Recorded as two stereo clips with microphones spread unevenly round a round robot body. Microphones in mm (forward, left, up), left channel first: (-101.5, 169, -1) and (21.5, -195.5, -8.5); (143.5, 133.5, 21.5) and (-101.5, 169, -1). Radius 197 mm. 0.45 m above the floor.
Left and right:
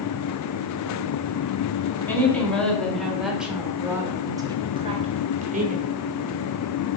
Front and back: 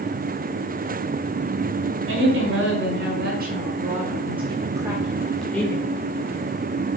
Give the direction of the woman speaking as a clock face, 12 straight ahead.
6 o'clock.